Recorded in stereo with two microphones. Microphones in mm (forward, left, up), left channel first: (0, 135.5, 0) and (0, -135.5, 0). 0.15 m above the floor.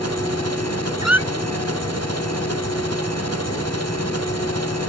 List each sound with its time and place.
0.0 s an engine running: 65° right (ahead or behind)
1.0 s a squeak: 70° right (ahead or behind)